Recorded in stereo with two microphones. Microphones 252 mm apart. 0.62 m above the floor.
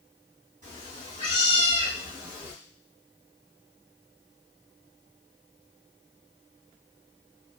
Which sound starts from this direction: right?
A cat meowing, at 0.6 s.